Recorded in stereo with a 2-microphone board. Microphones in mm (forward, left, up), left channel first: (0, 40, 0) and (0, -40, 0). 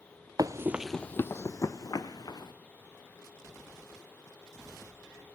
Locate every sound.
0.4 s running footsteps: 50° right (ahead or behind), 0.6 m; by 2.5 s 55° left (ahead or behind), 2 m